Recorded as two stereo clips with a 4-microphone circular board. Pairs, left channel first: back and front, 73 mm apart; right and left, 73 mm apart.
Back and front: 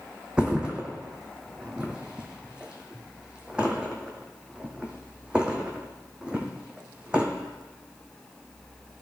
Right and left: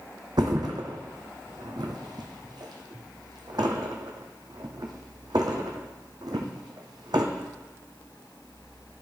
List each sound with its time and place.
0.4 s a thud: 75° left, 1.3 m